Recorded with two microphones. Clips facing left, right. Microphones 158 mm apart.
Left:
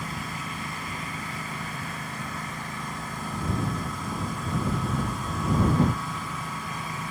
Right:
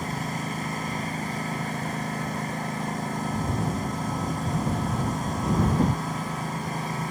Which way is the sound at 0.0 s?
40° right (ahead or behind).